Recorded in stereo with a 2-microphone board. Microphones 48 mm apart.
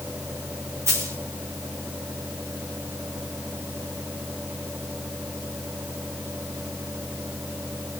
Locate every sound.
0.9 s a dropped coin: 70° right (ahead or behind), 6 m